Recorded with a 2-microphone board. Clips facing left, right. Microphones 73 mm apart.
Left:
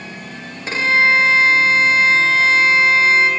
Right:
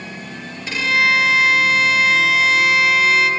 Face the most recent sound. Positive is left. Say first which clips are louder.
# left 2 dB
turn(degrees=35)  # may be behind; listen again after turning